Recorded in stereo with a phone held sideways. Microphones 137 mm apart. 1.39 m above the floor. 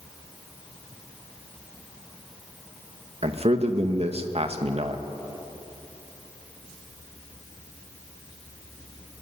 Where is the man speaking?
50° right (ahead or behind), 2.0 m.